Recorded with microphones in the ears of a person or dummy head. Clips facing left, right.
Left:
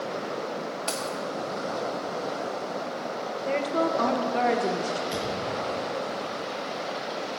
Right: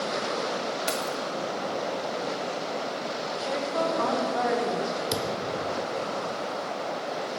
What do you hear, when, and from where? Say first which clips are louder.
0.9 s keys jangling: right 1 dB; 20° right (ahead or behind), 1.0 m
3.5 s a woman speaking: left 3 dB; 40° left (ahead or behind), 1.3 m
5.1 s a thud: right 1 dB; 70° right (ahead or behind), 1.5 m